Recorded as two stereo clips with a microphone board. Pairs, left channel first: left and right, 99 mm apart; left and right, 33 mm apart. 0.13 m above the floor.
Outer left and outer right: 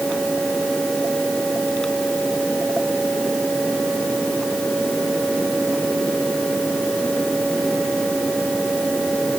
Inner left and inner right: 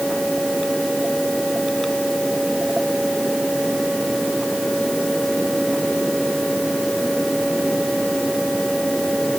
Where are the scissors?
I don't hear scissors.